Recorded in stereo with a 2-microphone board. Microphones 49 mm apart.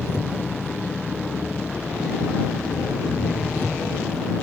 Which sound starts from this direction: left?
An engine running, at 0.0 s.